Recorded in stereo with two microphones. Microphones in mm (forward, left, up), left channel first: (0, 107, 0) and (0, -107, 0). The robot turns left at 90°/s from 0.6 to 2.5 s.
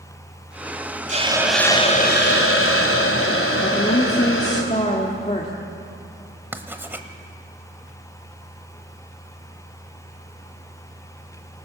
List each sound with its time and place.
1.1 s a hiss: 140° right, 2 m; by 4.6 s 90° left, 2 m
3.6 s a woman speaking: 35° left (ahead or behind), 1.7 m
6.5 s writing: 10° right (ahead or behind), 1.3 m